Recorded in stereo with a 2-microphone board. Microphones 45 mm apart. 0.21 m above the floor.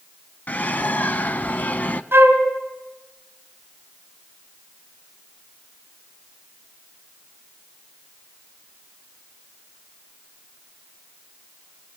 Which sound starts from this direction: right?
A flute, at 2.1 s.